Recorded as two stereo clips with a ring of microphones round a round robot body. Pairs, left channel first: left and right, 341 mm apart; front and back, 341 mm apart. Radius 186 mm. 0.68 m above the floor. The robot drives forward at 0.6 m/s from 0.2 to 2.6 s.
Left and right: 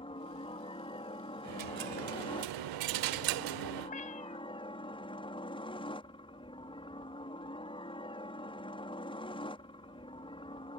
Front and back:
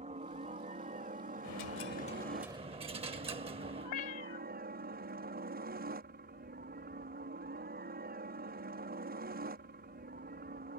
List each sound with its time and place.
0.0 s a helicopter: 140° left; by 10.8 s 150° left
1.4 s a dropped coin: 45° right; by 3.9 s 105° right
3.8 s a cat meowing: 20° left